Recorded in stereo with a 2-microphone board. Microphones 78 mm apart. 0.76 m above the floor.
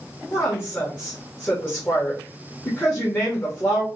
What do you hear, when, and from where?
0.3 s a woman speaking: 30° left (ahead or behind), 1.2 m